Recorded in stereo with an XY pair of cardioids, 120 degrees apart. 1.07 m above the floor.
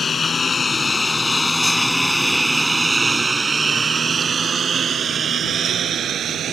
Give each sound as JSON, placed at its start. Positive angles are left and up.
{"t": 0.0, "sound": "a lawn mower", "azimuth_deg": 35}